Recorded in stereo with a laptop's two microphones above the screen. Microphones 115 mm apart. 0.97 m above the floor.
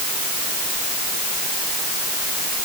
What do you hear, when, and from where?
Only background noise.